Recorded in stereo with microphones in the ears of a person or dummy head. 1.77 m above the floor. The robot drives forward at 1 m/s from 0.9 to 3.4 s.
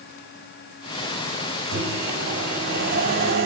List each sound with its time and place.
1.7 s a microwave: 65° right (ahead or behind), 7 m; by 3.5 s 50° right (ahead or behind), 7.5 m